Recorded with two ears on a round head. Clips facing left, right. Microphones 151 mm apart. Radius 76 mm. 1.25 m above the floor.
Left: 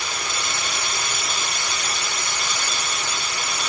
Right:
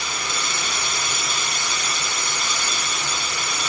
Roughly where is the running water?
Right.